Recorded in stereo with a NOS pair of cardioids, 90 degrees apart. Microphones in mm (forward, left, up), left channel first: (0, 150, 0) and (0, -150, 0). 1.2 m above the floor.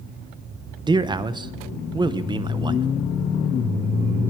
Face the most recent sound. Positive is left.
turn(degrees=-15)